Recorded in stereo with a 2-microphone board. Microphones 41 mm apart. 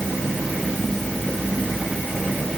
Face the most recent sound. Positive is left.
No sound to turn to.